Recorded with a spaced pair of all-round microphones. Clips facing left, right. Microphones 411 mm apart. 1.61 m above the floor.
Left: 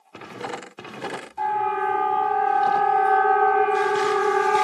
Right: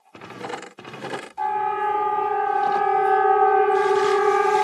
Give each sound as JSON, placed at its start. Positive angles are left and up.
{"t": 1.4, "sound": "a siren", "side_deg": 30, "distance_m": 7.5}